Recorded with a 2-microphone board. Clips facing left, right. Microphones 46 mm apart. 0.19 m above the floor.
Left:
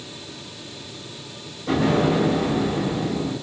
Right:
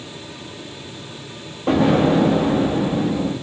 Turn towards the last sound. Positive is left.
turn(degrees=-80)